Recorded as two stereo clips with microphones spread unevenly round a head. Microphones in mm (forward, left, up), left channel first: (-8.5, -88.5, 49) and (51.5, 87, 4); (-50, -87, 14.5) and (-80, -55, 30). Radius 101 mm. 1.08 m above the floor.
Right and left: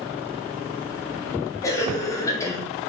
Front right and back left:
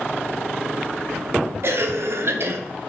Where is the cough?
170° left, 0.8 m.